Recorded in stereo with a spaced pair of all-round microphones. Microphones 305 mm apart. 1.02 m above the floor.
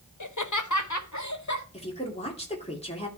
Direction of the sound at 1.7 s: 20° left (ahead or behind).